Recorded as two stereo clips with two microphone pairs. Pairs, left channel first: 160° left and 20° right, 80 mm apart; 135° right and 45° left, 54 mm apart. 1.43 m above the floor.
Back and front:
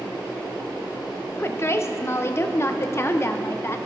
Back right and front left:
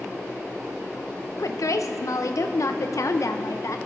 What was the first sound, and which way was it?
A woman speaking, 145° right.